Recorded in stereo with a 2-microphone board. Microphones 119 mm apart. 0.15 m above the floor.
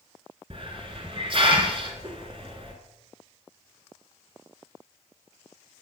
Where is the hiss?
50° right (ahead or behind), 1.6 m.